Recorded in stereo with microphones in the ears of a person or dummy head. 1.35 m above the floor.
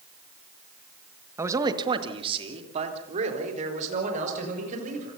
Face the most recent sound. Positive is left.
turn(degrees=-40)  # may be behind; listen again after turning